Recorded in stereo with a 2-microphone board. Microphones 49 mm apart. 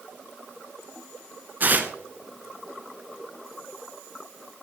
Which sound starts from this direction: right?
Tearing paper, at 1.6 s.